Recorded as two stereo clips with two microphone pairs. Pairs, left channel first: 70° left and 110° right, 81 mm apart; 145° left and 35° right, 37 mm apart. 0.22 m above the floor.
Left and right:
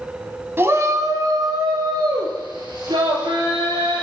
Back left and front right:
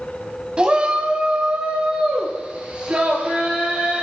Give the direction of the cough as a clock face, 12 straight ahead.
No cough in this recording.